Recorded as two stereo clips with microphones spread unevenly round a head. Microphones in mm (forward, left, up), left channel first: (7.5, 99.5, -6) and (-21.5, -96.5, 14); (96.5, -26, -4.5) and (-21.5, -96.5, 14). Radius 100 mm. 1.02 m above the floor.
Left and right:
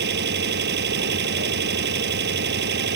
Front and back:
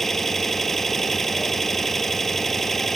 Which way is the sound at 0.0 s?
55° right.